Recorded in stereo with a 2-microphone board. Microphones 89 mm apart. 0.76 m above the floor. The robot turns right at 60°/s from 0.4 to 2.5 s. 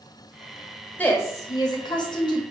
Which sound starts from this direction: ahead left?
A woman speaking, at 1.0 s.